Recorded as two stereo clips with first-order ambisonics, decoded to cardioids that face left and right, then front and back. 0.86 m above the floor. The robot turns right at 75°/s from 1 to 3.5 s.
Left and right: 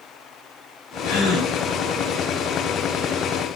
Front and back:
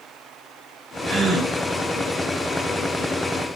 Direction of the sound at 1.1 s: 90° left.